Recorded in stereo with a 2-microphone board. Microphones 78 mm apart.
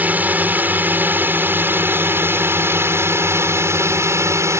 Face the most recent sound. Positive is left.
turn(degrees=-40)  # may be behind; listen again after turning